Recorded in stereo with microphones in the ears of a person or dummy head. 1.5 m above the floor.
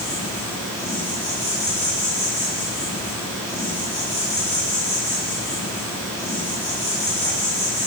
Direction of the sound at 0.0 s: 10° left (ahead or behind).